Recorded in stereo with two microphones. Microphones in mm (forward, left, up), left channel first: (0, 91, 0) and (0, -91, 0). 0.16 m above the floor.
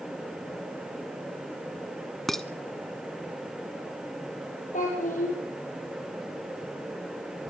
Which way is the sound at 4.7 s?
45° left (ahead or behind).